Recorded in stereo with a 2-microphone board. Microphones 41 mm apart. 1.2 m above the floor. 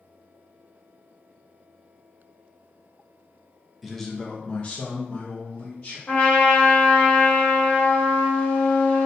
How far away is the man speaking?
About 0.6 m.